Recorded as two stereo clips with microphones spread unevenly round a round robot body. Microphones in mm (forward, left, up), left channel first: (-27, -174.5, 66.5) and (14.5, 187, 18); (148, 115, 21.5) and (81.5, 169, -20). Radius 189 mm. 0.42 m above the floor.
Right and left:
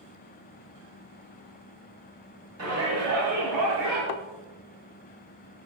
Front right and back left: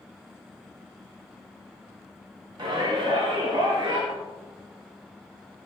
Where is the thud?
105° right, 0.6 m.